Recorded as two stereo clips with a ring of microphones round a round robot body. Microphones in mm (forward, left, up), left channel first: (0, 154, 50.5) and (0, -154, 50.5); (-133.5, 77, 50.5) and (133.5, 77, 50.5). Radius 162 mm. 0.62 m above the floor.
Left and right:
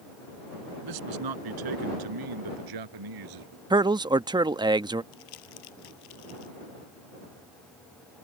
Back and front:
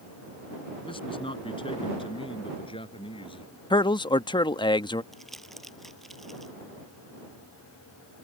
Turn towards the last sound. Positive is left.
turn(degrees=90)